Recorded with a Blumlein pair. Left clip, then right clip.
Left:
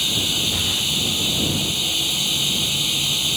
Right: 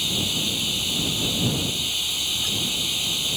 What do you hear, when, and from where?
0.0 s running water: 10° left